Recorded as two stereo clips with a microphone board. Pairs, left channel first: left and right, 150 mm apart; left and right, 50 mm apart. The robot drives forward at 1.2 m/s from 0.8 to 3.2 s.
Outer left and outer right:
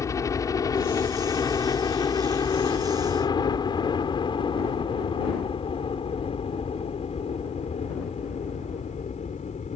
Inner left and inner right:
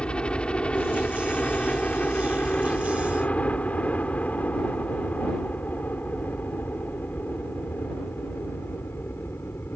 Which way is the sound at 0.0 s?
20° left (ahead or behind).